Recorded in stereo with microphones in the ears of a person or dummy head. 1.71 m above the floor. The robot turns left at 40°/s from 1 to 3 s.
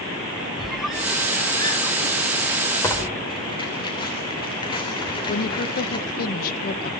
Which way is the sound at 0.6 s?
5° right (ahead or behind).